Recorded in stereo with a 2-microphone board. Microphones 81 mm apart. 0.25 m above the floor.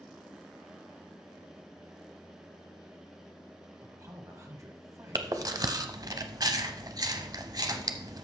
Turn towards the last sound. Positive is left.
turn(degrees=-50)  # may be behind; listen again after turning